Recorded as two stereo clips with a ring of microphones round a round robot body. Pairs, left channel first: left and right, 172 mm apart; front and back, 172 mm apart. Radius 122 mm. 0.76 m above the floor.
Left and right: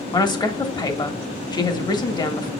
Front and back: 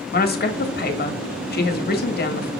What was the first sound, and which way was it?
A woman speaking, 25° left.